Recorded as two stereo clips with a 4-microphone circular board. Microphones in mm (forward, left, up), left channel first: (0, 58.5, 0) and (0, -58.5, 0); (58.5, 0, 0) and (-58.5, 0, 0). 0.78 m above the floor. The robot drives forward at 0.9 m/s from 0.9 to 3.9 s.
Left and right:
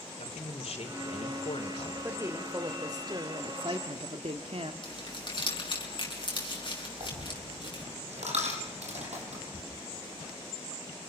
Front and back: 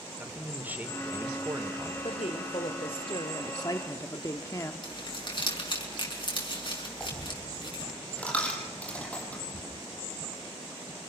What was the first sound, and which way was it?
A man speaking, 105° left.